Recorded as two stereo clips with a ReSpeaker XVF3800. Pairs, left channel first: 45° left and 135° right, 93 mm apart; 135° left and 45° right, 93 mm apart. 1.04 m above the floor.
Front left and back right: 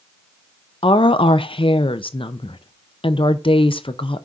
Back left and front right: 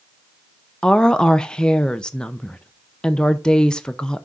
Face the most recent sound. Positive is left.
turn(degrees=55)